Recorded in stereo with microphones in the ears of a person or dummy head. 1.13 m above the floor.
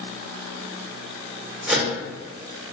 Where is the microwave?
5° right (ahead or behind), 1.0 m.